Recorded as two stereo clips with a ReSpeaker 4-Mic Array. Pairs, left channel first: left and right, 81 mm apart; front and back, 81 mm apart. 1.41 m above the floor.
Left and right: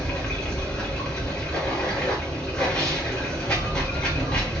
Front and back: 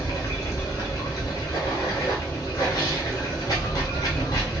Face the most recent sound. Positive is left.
turn(degrees=15)